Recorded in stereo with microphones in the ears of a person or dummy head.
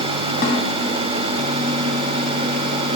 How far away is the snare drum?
About 2.5 m.